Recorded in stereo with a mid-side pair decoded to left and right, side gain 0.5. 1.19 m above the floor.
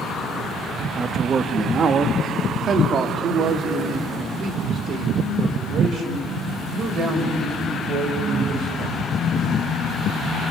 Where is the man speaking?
35° right, 1.4 m; by 9.0 s 60° right, 7 m.